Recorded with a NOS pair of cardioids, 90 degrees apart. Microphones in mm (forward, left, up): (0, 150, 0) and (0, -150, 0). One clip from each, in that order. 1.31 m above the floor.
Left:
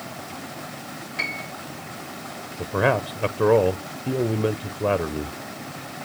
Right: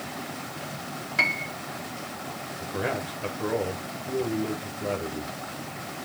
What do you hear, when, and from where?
1.2 s a piano: 35° right, 1.6 m
2.6 s a man speaking: 60° left, 0.8 m